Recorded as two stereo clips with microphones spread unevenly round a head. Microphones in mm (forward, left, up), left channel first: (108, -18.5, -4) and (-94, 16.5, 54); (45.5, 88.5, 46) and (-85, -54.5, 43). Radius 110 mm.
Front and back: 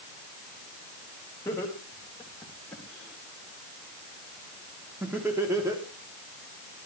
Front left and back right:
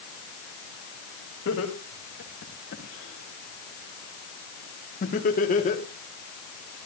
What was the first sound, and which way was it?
Laughter, 70° left.